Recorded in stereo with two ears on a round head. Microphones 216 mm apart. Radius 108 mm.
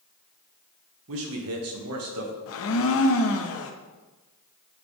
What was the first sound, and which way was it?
A man speaking, 60° right (ahead or behind).